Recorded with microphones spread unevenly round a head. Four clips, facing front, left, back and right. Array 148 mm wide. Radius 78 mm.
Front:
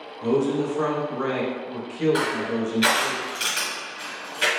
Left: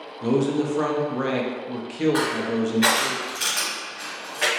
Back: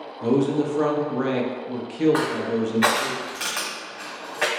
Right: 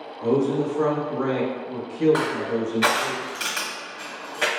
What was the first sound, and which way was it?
A man speaking, 135° left.